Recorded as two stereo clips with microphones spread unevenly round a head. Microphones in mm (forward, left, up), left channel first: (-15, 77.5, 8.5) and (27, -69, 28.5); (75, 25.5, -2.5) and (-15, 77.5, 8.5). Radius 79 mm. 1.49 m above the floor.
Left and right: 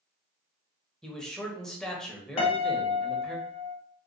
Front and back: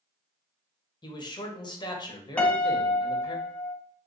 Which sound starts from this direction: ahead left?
A piano, at 2.4 s.